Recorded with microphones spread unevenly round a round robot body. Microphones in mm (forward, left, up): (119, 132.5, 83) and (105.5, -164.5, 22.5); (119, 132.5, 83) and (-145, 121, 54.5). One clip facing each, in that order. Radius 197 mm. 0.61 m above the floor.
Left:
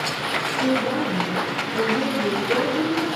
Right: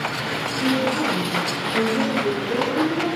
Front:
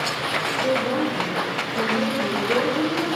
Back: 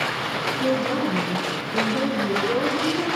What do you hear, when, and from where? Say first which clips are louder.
0.6 s a woman speaking: even, even; 175° left, 10 m